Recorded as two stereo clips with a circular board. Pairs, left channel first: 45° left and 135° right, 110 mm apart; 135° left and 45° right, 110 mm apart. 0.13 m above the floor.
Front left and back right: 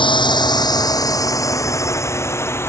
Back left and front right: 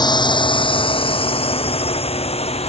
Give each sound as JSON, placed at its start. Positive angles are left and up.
{"t": 0.0, "sound": "a drone", "azimuth_deg": 85}